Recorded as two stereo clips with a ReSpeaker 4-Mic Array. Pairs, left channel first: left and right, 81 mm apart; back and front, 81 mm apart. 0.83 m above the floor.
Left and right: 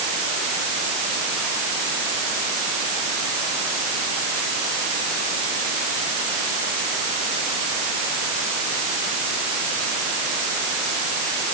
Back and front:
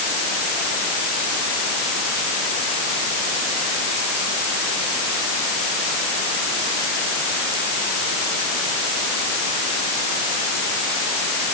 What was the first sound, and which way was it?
Only background noise.